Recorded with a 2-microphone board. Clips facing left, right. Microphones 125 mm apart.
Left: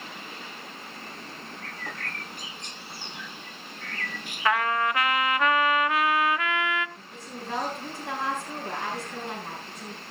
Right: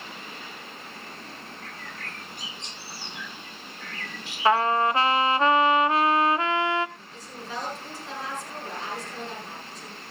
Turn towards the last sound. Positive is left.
turn(degrees=60)  # may be behind; listen again after turning